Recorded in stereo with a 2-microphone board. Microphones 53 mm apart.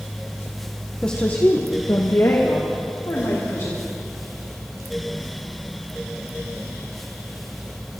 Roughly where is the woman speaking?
Centre.